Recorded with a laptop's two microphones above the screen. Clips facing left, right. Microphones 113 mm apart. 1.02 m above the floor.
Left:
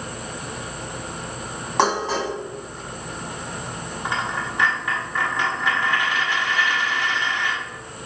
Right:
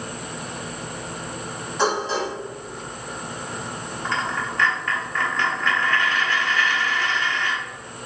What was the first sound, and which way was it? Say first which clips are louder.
Dishes clattering: left 2 dB; 80° left.